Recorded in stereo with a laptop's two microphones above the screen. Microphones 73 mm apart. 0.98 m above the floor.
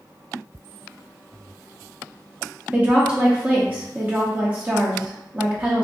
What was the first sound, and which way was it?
A woman speaking, 20° right (ahead or behind).